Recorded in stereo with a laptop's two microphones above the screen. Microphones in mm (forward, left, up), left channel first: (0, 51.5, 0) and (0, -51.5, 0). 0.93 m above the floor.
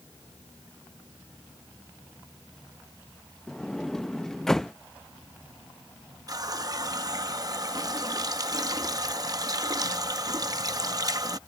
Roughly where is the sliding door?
Centre.